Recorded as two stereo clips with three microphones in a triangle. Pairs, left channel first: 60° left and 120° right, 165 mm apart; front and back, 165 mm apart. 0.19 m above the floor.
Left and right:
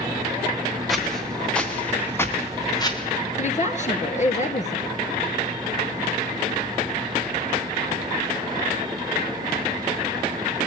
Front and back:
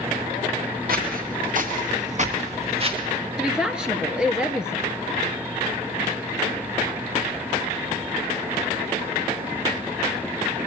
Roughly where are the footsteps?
Behind left.